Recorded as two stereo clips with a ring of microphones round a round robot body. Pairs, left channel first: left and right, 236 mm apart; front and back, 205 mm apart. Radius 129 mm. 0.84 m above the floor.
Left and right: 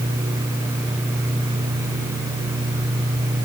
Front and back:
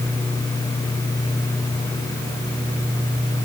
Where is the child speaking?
No child speaking in this recording.